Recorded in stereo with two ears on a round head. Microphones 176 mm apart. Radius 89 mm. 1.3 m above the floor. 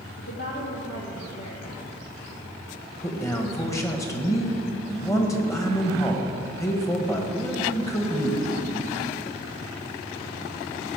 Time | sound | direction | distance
0.2 | a woman speaking | 60° left (ahead or behind) | 1.8 m
3.0 | a man speaking | 15° left (ahead or behind) | 1.5 m